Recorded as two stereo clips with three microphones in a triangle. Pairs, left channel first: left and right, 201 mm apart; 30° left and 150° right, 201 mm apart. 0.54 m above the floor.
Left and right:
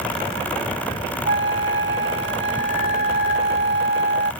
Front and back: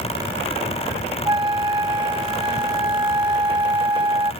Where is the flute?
85° right.